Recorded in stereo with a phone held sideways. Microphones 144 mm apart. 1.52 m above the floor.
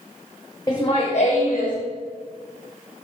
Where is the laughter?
15° left (ahead or behind), 0.5 m; by 1.8 s 85° left, 0.9 m.